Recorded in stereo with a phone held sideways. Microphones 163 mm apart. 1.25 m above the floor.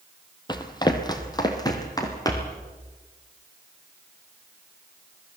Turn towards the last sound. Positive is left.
turn(degrees=20)  # may be behind; listen again after turning